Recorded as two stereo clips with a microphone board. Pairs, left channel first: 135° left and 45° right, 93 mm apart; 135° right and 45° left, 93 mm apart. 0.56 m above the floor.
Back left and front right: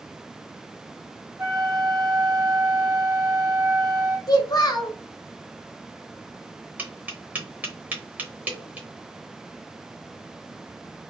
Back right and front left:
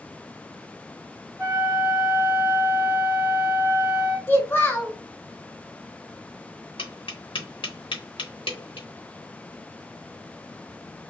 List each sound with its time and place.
1.4 s a flute: 15° right, 1.0 m
4.3 s a child speaking: 160° left, 0.8 m
6.8 s tapping: 115° right, 0.8 m